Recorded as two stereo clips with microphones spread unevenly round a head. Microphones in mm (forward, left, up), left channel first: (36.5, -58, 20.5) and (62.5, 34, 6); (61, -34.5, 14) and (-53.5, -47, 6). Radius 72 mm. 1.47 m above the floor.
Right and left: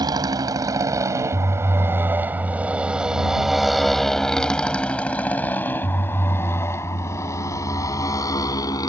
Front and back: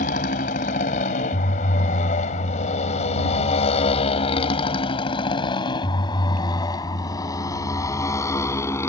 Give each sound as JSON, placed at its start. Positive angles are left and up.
{"t": 0.0, "sound": "a motorcycle", "azimuth_deg": 25}